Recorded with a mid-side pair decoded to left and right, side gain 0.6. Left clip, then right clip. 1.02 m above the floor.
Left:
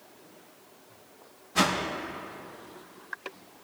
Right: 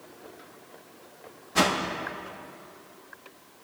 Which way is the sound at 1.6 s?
15° right.